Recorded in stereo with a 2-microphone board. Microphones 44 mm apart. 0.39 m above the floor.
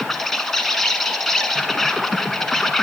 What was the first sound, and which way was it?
An insect, 5° left (ahead or behind).